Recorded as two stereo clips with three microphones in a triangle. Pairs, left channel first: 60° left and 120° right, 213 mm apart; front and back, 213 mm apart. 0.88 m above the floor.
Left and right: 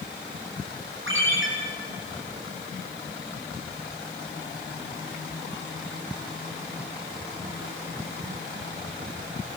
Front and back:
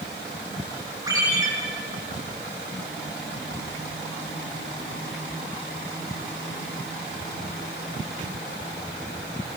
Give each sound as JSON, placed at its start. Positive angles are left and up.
{"t": 1.1, "sound": "a ringtone", "azimuth_deg": -105, "distance_m": 9.5}